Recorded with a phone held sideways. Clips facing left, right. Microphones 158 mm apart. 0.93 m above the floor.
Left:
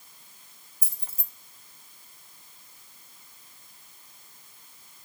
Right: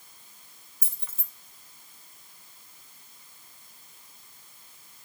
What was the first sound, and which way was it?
Keys jangling, 35° left (ahead or behind).